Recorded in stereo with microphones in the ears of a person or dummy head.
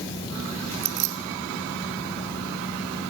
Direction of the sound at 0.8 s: 60° right (ahead or behind).